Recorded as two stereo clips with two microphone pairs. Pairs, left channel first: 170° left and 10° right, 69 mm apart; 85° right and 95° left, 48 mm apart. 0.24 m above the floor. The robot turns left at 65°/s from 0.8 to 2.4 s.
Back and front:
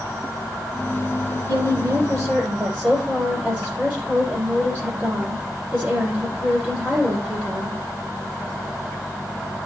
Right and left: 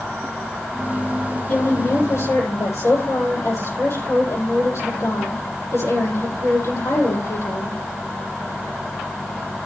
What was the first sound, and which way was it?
A woman speaking, 20° right.